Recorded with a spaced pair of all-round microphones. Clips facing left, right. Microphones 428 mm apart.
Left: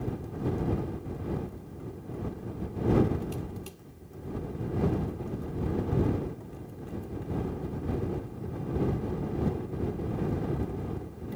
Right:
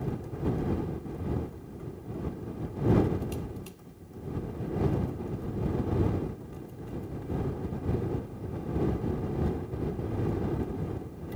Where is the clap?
No clap in this recording.